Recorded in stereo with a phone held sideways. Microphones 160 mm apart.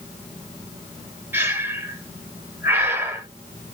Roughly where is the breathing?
Centre.